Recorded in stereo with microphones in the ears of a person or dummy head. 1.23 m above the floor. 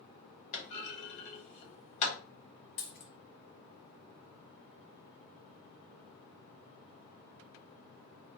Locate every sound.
0.5 s a clunk: 35° left (ahead or behind), 1.0 m
2.8 s a dropped coin: 45° left (ahead or behind), 0.8 m